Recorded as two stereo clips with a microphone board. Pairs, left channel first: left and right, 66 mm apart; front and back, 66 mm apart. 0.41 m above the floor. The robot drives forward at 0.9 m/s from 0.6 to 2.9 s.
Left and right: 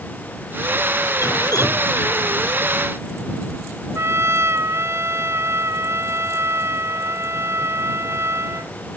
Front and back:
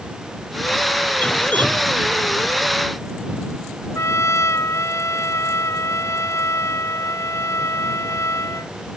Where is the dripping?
65° left; by 1.9 s 70° left.